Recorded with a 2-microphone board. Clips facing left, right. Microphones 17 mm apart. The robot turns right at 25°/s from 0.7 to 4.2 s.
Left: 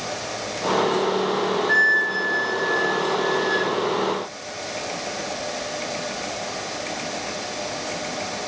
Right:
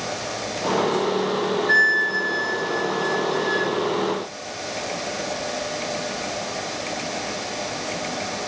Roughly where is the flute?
Ahead right.